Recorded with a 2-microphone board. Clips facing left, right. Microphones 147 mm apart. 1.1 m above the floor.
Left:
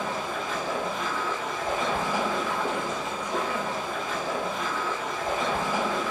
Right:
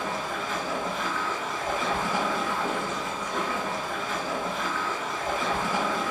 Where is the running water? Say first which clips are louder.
Left 1 dB; 15° left (ahead or behind), 2.0 m.